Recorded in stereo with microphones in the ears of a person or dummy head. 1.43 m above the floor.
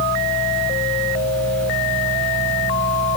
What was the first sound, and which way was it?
A fan, 10° left (ahead or behind).